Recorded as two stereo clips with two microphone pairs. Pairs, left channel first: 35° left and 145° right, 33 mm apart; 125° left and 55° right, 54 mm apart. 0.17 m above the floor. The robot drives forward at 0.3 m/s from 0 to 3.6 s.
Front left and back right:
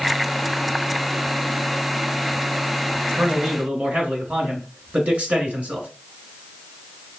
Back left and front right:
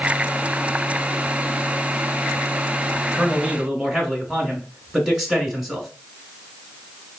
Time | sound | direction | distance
3.1 | a man speaking | 135° right | 1.4 m